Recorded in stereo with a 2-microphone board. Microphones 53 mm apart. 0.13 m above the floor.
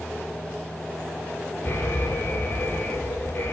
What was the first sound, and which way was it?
An alarm, 40° left (ahead or behind).